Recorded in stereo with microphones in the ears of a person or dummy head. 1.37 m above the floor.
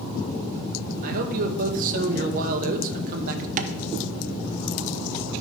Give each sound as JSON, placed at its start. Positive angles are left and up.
{"t": 1.0, "sound": "a man speaking", "side_deg": -50, "distance_m": 1.1}
{"t": 3.6, "sound": "tapping", "side_deg": -45, "distance_m": 0.6}